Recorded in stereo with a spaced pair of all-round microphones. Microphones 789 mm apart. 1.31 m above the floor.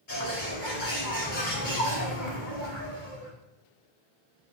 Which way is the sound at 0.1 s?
75° left (ahead or behind).